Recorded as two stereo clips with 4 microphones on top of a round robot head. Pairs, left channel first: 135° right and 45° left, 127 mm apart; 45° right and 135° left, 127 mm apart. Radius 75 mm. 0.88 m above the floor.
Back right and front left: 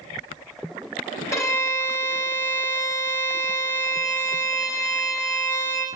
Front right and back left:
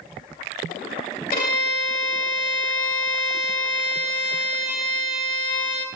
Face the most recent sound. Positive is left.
turn(degrees=-70)